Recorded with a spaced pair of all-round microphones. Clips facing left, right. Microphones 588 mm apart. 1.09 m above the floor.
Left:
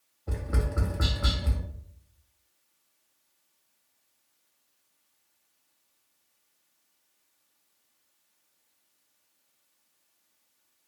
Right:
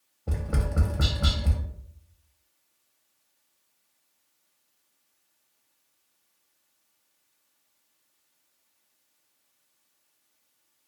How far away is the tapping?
About 0.6 m.